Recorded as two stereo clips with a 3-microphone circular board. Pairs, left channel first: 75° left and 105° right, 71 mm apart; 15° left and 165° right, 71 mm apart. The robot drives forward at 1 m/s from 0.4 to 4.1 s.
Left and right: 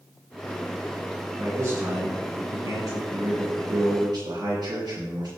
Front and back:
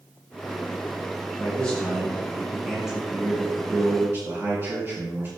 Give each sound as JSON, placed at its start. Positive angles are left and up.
{"t": 1.4, "sound": "a man speaking", "azimuth_deg": -50, "distance_m": 3.0}